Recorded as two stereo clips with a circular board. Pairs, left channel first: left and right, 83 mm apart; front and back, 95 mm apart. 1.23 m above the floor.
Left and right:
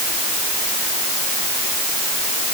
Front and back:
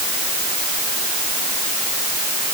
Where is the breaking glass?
No breaking glass in this recording.